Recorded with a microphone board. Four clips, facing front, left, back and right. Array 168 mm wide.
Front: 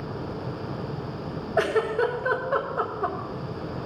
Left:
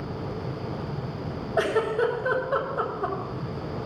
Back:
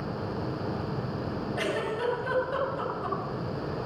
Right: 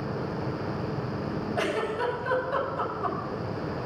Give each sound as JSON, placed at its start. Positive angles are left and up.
{"t": 1.6, "sound": "a giggle", "azimuth_deg": 35, "distance_m": 3.5}